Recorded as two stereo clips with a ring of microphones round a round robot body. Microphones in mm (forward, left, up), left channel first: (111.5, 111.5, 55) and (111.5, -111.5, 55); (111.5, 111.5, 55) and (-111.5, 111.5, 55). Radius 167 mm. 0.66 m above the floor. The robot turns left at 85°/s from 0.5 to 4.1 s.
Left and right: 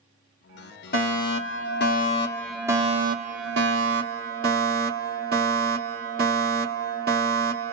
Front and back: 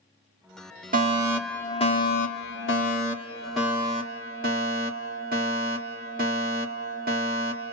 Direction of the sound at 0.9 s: 135° left.